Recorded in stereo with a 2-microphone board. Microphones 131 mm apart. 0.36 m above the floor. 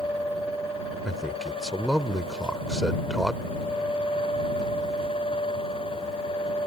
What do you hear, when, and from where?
1.1 s a man speaking: centre (ahead or behind)